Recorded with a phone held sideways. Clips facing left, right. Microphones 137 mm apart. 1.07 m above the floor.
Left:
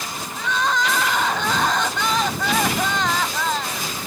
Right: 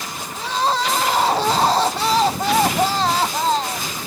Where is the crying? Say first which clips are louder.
Right 2 dB; 35° right (ahead or behind).